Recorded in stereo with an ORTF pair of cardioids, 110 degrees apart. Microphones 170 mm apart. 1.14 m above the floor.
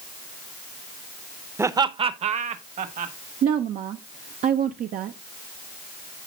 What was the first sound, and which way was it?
Laughter, 15° right.